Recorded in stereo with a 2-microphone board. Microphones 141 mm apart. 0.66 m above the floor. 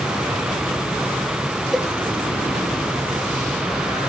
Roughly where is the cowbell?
Centre.